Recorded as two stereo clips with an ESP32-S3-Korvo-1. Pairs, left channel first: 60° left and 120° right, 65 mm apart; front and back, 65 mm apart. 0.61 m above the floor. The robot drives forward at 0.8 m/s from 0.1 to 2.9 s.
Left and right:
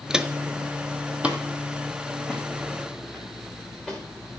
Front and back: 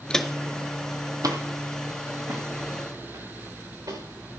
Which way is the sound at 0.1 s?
55° right.